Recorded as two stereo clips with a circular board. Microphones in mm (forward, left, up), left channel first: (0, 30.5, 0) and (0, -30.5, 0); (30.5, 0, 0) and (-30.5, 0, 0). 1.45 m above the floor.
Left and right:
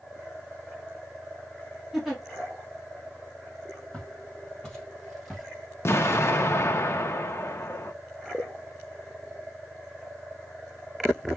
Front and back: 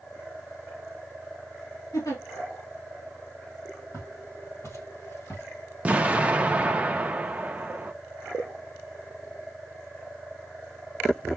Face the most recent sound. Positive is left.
turn(degrees=120)